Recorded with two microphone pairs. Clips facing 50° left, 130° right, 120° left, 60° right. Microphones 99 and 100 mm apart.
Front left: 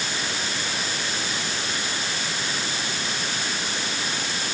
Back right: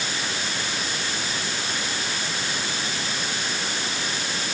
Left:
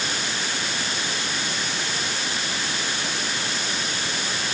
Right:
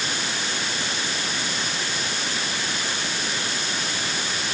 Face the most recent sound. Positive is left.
No sound to turn to.